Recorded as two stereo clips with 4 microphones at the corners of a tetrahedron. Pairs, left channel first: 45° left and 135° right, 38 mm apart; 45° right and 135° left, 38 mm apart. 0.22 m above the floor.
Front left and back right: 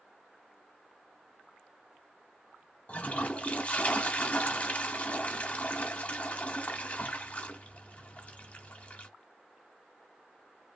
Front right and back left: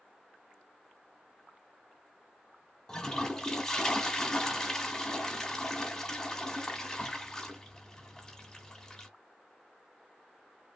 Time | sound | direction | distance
2.9 | a toilet flushing | 20° left | 0.8 m